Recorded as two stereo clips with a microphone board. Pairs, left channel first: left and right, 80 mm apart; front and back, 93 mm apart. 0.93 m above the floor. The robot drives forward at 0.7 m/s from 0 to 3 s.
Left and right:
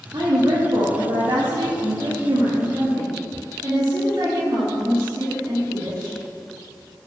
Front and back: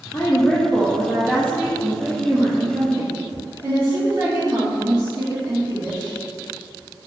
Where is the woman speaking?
65° right, 1.7 m; by 6.2 s 135° right, 2 m.